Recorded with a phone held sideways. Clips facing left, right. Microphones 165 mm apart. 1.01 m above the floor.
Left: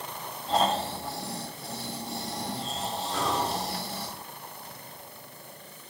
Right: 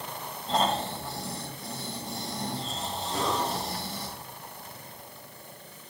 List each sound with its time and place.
0.5 s snoring: centre (ahead or behind), 2 m
3.1 s breathing: 40° right (ahead or behind), 3 m